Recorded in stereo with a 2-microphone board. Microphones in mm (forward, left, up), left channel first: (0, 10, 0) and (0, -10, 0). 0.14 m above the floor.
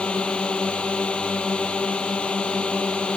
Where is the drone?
60° left (ahead or behind).